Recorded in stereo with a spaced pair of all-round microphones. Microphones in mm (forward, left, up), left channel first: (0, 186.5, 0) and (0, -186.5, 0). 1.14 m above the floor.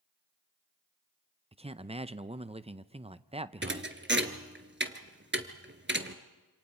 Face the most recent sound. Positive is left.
turn(degrees=-30)  # may be behind; listen again after turning